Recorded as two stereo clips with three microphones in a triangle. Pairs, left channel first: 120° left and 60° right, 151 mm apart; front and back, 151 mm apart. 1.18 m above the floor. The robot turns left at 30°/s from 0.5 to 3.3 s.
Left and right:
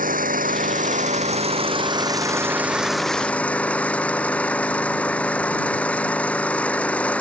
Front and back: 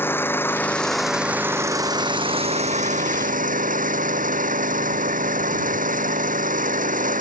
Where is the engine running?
75° right; by 7.2 s 160° right.